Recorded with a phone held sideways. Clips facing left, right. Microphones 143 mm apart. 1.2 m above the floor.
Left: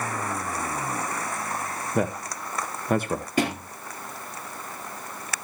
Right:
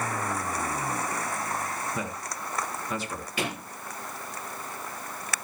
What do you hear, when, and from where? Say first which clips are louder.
1.9 s a man speaking: left 8 dB; 55° left (ahead or behind), 1.0 m
3.4 s a thud: left 7 dB; 45° left (ahead or behind), 4.5 m